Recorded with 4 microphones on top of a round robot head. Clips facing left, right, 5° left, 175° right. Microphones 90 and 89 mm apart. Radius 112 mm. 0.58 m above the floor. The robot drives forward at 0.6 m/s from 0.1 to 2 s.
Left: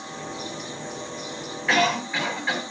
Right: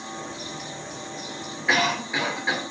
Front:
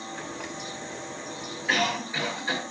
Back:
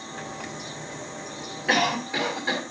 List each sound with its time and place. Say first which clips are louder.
1.7 s a cough: left 1 dB, back 3 dB; 170° right, 1.9 m